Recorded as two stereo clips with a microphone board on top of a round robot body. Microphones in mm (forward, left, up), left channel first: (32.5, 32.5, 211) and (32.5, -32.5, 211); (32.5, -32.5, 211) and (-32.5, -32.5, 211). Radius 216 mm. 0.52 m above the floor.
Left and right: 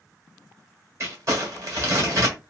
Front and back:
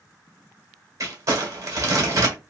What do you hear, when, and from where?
1.0 s crumpling: 135° right, 1.6 m